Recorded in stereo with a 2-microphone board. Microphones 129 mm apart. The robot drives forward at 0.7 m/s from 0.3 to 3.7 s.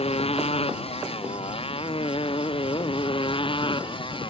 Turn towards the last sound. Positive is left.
turn(degrees=40)  # may be behind; listen again after turning